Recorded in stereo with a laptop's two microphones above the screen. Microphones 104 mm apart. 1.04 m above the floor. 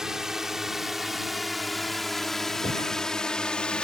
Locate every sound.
0.0 s a drone: 5° right (ahead or behind); by 3.9 s 10° left (ahead or behind)
2.6 s breathing: 85° left